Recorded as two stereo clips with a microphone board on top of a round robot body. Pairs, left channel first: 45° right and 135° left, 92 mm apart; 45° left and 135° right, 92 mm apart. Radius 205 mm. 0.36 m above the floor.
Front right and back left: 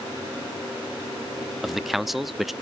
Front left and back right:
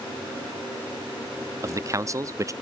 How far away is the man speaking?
About 1.1 m.